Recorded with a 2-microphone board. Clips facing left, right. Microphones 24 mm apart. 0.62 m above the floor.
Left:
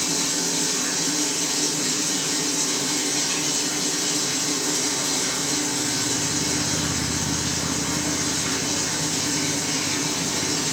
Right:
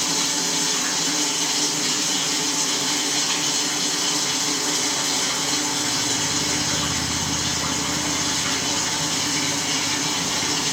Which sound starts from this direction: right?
Running water, at 0.0 s.